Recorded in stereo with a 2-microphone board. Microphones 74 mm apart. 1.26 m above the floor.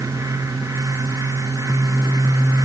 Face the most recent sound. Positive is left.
No sound to turn to.